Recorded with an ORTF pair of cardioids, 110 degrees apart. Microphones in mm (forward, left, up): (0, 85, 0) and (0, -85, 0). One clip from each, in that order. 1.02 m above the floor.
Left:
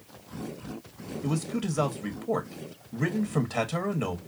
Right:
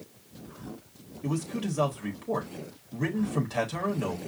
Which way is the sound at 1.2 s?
15° left.